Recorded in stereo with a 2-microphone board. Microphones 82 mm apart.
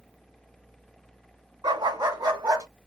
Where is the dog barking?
60° right (ahead or behind), 3.5 m; by 2.7 s 45° right (ahead or behind), 3 m.